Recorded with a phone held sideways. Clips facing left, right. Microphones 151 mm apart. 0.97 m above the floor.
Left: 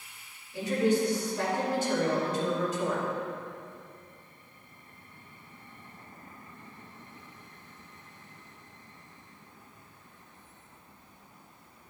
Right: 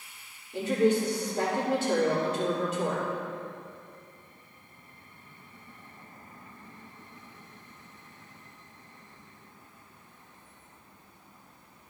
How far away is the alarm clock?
I don't hear an alarm clock.